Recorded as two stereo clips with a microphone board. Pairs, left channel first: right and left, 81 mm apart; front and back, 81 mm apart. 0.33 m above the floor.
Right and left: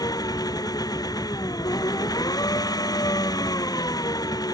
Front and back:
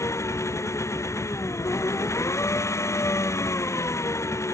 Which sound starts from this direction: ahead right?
An engine running, at 0.0 s.